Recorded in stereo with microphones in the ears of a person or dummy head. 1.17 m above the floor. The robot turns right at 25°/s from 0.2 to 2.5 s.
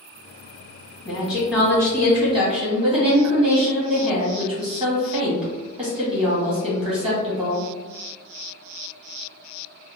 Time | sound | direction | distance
1.1 | a woman speaking | 170° left | 1.0 m